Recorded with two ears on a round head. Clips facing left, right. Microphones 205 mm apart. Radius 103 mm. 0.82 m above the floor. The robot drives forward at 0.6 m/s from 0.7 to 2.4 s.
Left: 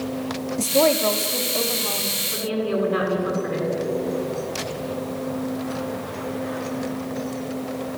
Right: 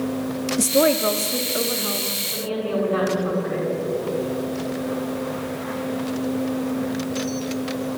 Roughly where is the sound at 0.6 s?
Centre.